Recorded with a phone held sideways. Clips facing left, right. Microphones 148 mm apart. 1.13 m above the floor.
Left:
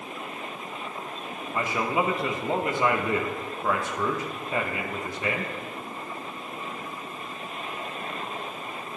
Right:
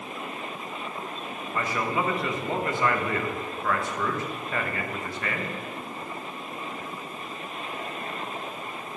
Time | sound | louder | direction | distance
1.5 | a man speaking | left 2 dB | 20° left (ahead or behind) | 0.8 m